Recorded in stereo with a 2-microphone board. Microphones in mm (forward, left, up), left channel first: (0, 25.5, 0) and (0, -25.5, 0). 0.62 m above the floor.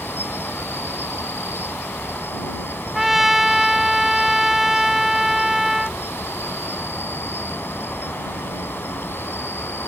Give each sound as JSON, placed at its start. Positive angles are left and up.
{"t": 0.0, "sound": "an insect", "side_deg": 45}
{"t": 3.0, "sound": "a trumpet", "side_deg": -5}